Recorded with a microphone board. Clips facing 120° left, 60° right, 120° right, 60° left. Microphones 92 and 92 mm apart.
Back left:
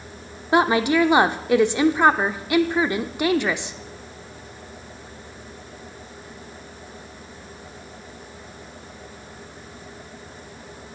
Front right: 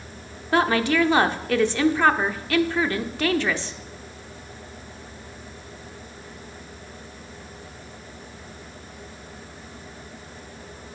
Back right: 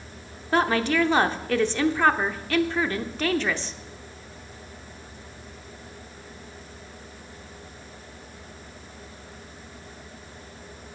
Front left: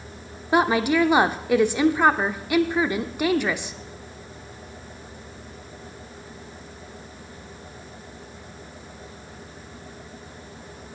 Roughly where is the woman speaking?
Left.